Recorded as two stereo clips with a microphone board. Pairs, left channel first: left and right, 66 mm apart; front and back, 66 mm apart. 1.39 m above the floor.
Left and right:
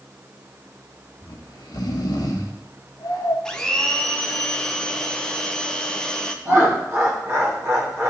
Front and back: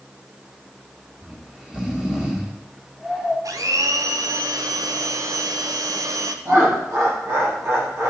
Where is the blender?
170° left, 0.6 m.